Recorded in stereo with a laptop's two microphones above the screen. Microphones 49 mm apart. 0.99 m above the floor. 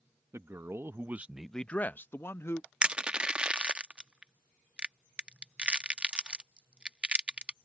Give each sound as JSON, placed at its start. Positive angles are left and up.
{"t": 0.3, "sound": "a man speaking", "side_deg": -75}
{"t": 2.8, "sound": "crushing", "side_deg": -20}